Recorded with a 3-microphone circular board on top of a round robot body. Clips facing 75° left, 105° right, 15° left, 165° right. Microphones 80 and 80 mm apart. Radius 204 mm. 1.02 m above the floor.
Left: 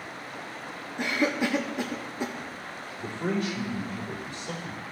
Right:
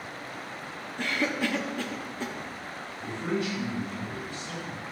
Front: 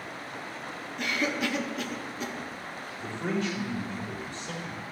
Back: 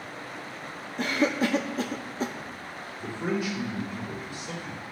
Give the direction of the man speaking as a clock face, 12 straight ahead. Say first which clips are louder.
Left 1 dB, back 1 dB; 8 o'clock.